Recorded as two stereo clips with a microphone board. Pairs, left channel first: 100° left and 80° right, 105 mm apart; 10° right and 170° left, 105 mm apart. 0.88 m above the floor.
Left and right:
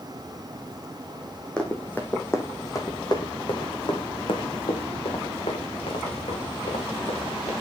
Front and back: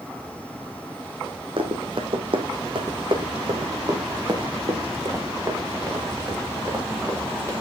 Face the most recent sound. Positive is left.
turn(degrees=100)